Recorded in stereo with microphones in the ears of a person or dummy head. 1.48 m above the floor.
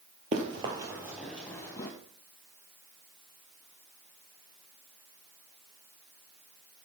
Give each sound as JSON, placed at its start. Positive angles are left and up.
{"t": 0.3, "sound": "running footsteps", "side_deg": -30, "distance_m": 1.7}